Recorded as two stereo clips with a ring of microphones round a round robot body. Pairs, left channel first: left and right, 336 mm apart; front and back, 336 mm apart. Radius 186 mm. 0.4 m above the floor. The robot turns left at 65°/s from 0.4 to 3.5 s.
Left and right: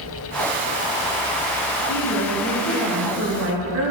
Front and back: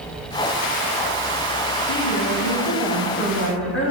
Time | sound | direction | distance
1.9 | a woman speaking | 60° left | 3 m